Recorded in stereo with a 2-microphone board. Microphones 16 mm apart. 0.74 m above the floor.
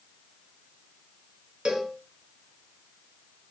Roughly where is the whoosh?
I don't hear a whoosh.